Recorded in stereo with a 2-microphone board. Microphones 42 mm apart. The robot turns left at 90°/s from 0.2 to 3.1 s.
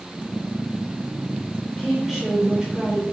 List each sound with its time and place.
1.7 s a woman speaking: 10° left (ahead or behind), 0.8 m; by 3.0 s 20° right (ahead or behind), 0.8 m